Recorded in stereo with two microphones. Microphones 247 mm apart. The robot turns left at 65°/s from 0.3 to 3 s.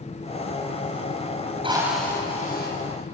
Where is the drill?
160° right, 5.5 m; by 2.7 s 130° left, 5.5 m.